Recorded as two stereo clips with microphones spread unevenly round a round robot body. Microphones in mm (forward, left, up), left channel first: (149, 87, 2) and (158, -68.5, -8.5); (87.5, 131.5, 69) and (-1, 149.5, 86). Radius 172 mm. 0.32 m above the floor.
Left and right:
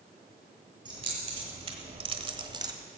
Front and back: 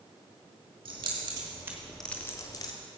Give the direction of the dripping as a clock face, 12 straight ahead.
No dripping in this recording.